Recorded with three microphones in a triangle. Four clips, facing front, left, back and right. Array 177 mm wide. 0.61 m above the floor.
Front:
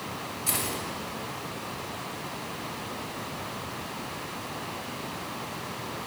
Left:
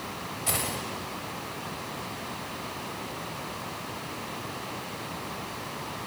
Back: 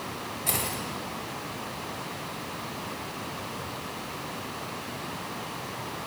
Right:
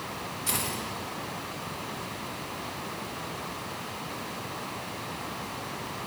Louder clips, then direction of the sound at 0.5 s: Left 2 dB, back 1 dB; 115° left.